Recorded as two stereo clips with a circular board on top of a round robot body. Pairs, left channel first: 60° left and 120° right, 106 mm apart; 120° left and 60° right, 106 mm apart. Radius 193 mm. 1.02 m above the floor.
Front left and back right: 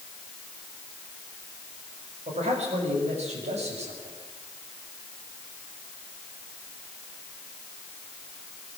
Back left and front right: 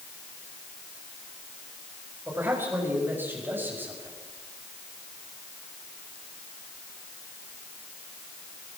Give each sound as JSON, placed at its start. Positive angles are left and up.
{"t": 2.3, "sound": "a man speaking", "azimuth_deg": -130, "distance_m": 7.0}